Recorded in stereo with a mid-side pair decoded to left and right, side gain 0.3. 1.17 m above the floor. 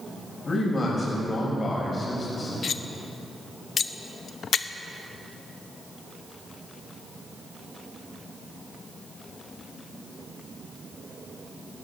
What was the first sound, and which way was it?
A man speaking, 50° left.